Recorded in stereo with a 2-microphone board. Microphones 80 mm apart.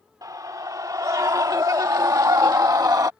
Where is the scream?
50° right (ahead or behind).